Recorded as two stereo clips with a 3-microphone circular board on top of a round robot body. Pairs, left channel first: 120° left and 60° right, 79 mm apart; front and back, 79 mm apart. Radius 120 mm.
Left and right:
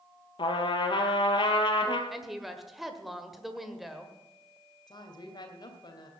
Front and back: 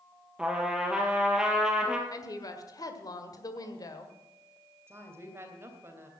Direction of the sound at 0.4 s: 100° left.